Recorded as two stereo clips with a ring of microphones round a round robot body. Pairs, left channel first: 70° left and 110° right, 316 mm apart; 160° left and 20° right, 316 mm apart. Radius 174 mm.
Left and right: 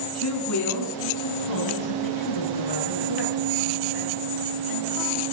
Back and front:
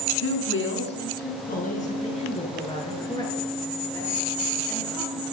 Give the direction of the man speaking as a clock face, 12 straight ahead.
8 o'clock.